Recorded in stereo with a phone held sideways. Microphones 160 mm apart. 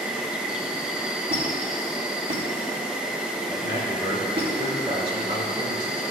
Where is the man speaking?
60° right (ahead or behind), 2.5 m.